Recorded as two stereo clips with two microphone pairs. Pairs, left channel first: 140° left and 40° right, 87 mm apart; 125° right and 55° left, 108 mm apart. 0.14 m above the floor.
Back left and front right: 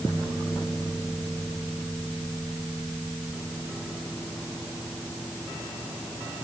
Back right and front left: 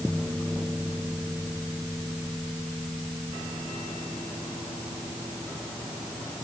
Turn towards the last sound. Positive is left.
No sound to turn to.